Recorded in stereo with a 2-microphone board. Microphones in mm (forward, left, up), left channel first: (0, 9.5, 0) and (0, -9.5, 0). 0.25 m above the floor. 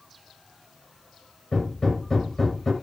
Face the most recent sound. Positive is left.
turn(degrees=20)  # may be behind; listen again after turning